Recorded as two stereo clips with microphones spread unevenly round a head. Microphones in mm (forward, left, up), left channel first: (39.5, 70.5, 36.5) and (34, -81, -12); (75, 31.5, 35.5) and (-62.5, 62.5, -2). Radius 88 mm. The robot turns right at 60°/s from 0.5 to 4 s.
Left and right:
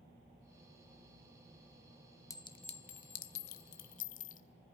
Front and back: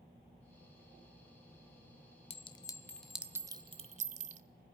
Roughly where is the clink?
Ahead left.